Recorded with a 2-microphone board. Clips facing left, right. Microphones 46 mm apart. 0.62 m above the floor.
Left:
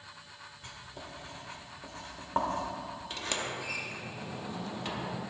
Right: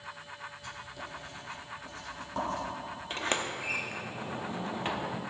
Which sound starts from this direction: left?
Writing, at 0.6 s.